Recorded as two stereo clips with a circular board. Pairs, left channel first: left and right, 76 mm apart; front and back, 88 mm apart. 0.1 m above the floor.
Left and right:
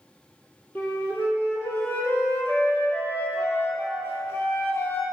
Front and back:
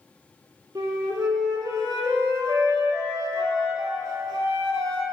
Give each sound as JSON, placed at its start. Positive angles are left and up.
{"t": 0.8, "sound": "a flute", "azimuth_deg": 145, "distance_m": 1.1}